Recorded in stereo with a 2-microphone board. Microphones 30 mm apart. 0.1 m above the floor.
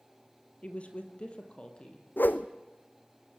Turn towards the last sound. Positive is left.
turn(degrees=75)  # may be behind; listen again after turning